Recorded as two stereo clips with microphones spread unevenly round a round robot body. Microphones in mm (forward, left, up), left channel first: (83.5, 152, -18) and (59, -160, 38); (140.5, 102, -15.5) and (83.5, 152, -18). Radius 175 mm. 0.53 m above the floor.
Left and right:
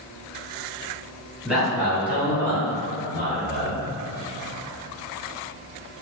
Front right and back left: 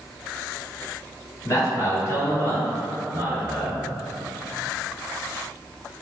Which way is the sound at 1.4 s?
Straight ahead.